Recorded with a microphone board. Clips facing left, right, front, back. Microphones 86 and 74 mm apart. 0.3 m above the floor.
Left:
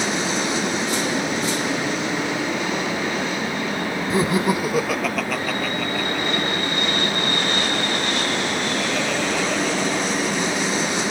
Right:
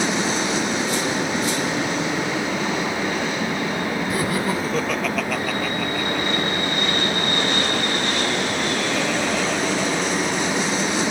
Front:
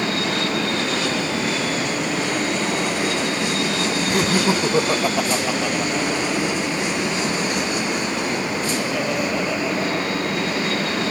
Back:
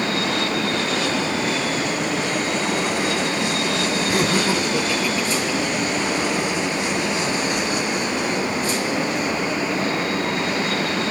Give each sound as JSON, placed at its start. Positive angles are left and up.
{"t": 4.1, "sound": "laughter", "azimuth_deg": 110, "distance_m": 1.0}